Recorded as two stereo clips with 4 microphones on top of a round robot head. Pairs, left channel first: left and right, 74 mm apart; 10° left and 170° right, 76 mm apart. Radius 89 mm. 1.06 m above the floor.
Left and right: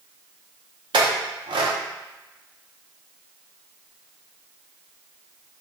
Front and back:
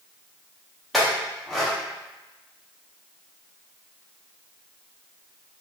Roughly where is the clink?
Right.